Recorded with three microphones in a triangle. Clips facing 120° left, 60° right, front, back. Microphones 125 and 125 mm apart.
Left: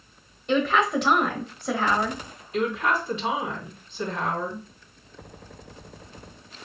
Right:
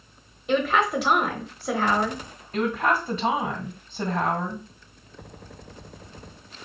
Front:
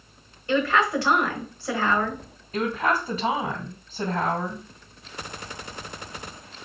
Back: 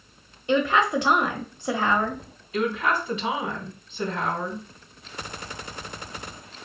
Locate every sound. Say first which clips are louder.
0.5 s a woman speaking: even, back 1 dB; 140° right, 1.0 m
2.5 s a woman speaking: right 1 dB, even; 30° right, 2.5 m